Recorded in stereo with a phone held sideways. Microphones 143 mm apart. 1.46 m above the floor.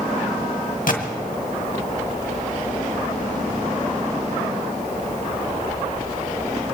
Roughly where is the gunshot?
Left.